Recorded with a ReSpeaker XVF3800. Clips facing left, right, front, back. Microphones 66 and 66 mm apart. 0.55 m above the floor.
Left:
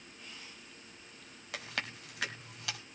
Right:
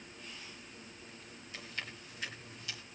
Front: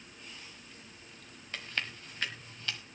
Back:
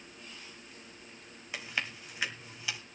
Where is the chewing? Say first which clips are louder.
Left 5 dB, back 1 dB; 100° left, 1.6 m.